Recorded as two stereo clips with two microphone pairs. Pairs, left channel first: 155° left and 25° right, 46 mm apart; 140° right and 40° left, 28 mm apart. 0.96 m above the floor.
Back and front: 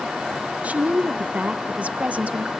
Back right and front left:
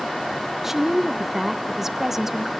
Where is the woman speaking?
35° right, 0.7 m.